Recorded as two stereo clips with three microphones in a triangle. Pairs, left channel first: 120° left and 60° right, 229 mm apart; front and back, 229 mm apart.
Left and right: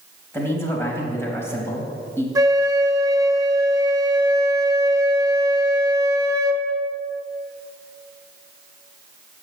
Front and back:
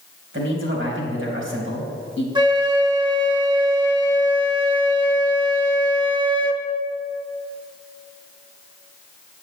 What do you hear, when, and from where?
0.3 s a man speaking: 160° right, 3.5 m
2.4 s a flute: 125° right, 1.0 m